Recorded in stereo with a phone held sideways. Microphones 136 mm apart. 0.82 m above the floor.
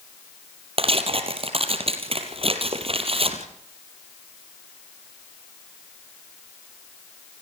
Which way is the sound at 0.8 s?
50° right (ahead or behind).